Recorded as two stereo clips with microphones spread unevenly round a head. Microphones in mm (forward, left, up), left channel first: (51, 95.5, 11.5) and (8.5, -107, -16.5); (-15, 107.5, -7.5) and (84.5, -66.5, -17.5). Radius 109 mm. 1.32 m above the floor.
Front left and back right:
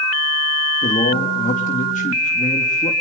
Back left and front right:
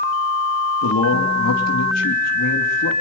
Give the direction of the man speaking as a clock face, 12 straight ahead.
7 o'clock.